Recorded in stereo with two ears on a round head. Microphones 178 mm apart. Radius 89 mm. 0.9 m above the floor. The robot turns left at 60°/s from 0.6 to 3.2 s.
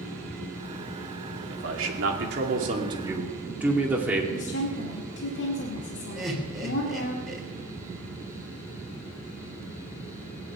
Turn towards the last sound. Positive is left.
turn(degrees=0)  # may be behind; listen again after turning